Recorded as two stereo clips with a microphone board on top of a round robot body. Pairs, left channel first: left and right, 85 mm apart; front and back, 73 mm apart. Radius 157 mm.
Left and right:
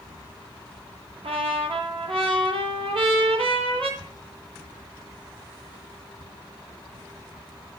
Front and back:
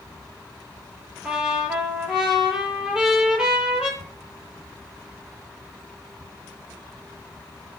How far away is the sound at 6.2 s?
About 2.5 m.